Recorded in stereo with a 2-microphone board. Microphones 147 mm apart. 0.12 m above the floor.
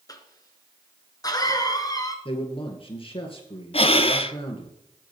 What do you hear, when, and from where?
0.1 s a cough: 30° left (ahead or behind), 1.5 m
2.2 s a man speaking: 40° left (ahead or behind), 2 m
3.7 s breathing: 45° left (ahead or behind), 0.5 m